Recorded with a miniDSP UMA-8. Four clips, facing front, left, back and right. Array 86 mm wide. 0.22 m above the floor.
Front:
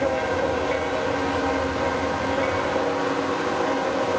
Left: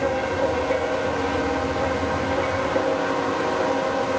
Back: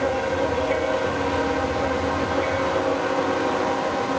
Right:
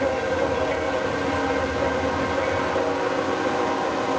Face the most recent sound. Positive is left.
No sound to turn to.